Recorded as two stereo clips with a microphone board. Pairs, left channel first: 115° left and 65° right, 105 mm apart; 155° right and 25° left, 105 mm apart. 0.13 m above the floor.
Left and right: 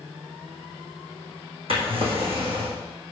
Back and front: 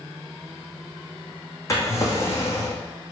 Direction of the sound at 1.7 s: 95° right.